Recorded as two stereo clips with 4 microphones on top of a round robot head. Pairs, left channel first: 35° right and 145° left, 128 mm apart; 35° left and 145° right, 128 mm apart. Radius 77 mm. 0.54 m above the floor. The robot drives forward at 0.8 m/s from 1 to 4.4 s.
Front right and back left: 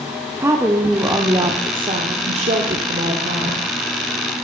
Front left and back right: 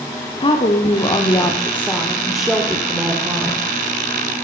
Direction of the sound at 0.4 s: 75° left.